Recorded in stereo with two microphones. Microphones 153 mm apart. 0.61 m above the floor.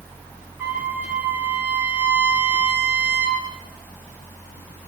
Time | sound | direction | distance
0.6 | a trumpet | 15° right (ahead or behind) | 9.5 m